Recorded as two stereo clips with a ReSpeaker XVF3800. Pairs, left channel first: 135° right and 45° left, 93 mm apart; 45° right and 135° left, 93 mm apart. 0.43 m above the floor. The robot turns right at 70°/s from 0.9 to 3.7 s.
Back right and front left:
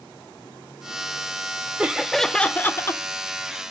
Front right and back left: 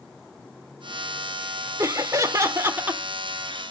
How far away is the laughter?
About 0.8 m.